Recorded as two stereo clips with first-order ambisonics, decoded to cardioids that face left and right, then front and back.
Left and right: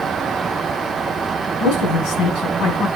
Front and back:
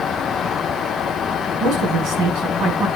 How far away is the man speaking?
About 6 m.